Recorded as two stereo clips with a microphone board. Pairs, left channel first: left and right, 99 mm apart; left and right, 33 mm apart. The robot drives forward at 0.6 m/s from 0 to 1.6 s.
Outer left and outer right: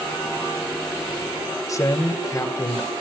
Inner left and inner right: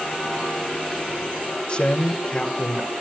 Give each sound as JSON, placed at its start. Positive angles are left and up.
{"t": 1.7, "sound": "a man speaking", "side_deg": 35, "distance_m": 1.4}